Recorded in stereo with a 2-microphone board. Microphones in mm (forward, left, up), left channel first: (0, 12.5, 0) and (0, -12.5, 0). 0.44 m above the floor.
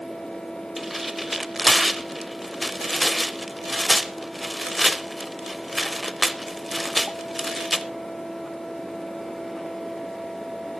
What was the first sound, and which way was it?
Tearing paper, 5° right (ahead or behind).